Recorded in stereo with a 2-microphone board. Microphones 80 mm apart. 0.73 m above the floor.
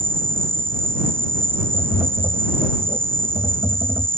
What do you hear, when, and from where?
0.0 s an insect: 30° right (ahead or behind)
1.7 s tapping: 40° right (ahead or behind)